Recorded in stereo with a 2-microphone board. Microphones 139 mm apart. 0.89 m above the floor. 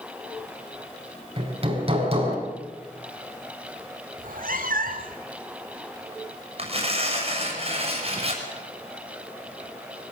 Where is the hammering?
45° right (ahead or behind), 5.5 m.